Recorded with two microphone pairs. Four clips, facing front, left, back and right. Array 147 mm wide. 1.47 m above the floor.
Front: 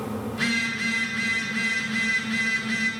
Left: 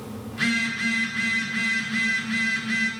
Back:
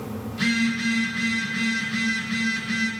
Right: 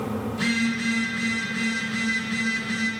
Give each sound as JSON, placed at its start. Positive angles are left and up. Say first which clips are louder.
{"t": 0.3, "sound": "a phone buzzing", "louder": "even, back 8 dB", "azimuth_deg": 60, "distance_m": 2.0}